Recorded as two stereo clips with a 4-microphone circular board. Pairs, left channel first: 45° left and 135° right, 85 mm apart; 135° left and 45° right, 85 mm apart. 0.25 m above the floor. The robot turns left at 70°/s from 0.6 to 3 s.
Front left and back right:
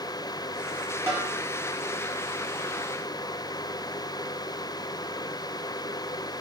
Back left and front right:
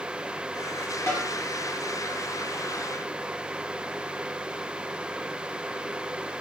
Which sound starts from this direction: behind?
A snare drum, at 1.1 s.